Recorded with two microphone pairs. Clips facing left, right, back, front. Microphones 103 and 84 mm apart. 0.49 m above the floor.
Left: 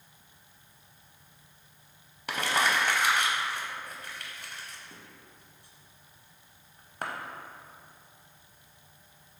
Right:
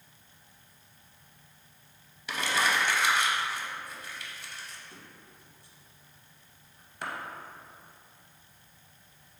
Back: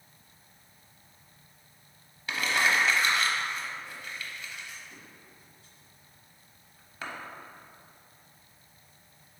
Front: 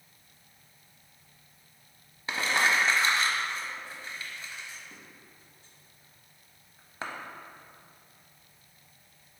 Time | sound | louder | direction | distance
2.3 | crumpling | left 1 dB, even | 55° left | 0.5 m